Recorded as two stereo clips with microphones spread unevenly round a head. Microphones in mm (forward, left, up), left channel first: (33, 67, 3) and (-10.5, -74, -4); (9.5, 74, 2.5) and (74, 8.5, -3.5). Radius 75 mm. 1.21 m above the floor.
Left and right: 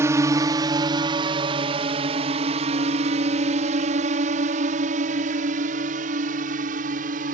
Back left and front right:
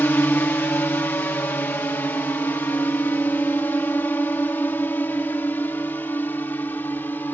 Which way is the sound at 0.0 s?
165° right.